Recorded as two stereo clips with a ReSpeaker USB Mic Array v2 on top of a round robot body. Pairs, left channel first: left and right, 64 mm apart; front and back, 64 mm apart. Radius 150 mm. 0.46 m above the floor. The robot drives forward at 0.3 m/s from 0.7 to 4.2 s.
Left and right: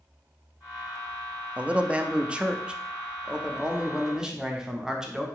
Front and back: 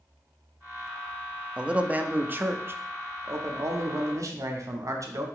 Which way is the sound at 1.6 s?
125° right.